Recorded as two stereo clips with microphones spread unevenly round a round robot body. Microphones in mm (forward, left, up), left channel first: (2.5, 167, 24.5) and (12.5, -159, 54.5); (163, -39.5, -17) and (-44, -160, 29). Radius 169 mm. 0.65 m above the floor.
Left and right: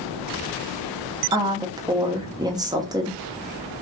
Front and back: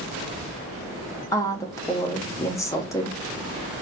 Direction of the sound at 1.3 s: 10° right.